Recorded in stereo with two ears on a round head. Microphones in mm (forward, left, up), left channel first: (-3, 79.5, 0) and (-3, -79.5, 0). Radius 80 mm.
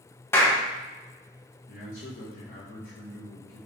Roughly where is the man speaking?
Left.